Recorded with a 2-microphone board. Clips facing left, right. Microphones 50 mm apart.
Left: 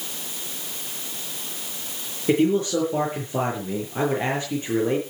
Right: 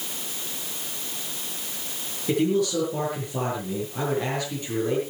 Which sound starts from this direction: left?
A man speaking, at 2.3 s.